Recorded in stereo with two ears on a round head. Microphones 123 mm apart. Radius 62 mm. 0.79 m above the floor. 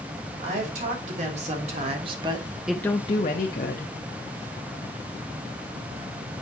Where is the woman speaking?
60° right (ahead or behind), 3 m; by 4.0 s 75° left (ahead or behind), 1.4 m.